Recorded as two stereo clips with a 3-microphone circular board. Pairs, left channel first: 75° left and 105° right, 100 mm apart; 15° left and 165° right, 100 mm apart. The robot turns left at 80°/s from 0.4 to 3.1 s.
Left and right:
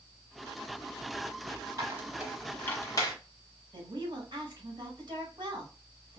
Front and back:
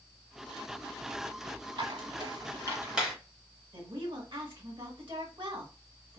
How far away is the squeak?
About 1.0 m.